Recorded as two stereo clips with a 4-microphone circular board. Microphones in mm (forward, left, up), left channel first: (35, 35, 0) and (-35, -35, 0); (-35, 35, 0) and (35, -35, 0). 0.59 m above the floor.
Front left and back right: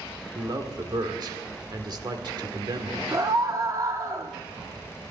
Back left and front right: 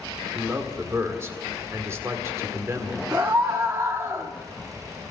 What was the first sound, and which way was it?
A man speaking, 105° right.